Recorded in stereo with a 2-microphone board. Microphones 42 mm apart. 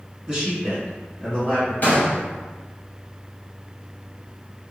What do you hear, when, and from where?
0.3 s a man speaking: 15° right (ahead or behind), 1.7 m; by 1.7 s 30° left (ahead or behind), 1.7 m
1.8 s a gunshot: 45° left (ahead or behind), 1.3 m